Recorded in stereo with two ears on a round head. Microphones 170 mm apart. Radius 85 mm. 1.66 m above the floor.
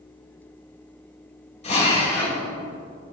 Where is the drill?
35° left (ahead or behind), 2.5 m.